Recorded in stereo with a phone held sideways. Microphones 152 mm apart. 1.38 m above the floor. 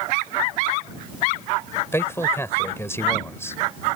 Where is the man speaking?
15° left (ahead or behind).